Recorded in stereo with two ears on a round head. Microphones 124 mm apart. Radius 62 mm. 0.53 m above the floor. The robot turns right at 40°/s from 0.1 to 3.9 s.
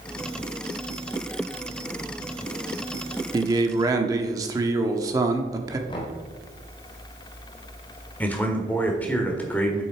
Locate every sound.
3.3 s a man speaking: 30° right (ahead or behind), 0.9 m; by 5.8 s 25° right (ahead or behind), 0.9 m
5.9 s knocking: 35° left (ahead or behind), 1.5 m
8.2 s a man speaking: 10° left (ahead or behind), 1.5 m